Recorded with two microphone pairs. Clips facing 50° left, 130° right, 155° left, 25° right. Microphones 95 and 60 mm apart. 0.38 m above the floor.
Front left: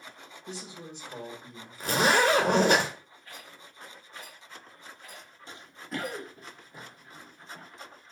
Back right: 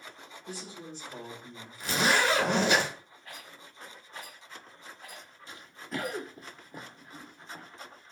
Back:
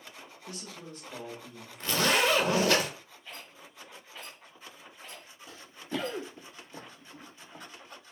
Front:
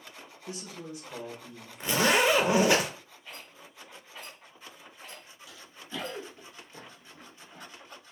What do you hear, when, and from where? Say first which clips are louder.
0.5 s a man speaking: front left 1 dB, front 4 dB; 10° left, 1.1 m; by 2.8 s 160° left, 1.2 m
1.8 s a zipper: front left 3 dB, front 2 dB; 40° left, 0.6 m
3.2 s a rattle: even, even; 105° right, 1.9 m
5.5 s running footsteps: front left 1 dB, back 6 dB; 105° left, 0.6 m; by 7.7 s 140° right, 1.4 m